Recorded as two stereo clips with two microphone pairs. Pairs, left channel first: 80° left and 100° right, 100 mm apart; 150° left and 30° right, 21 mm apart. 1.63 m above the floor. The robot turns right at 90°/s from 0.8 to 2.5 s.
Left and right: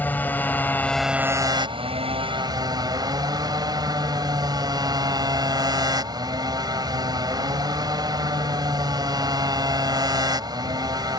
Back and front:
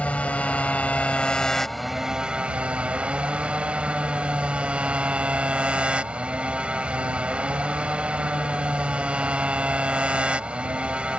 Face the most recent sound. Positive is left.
turn(degrees=-60)